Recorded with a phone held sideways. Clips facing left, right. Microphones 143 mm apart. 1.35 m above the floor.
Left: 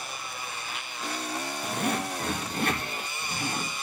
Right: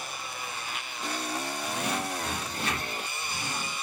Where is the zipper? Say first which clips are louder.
Left 4 dB; 55° left (ahead or behind), 2 m.